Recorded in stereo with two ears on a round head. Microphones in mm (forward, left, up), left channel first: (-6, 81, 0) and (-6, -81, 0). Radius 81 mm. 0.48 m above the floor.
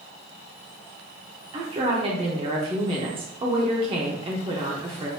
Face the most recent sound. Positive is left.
turn(degrees=-30)  # may be behind; listen again after turning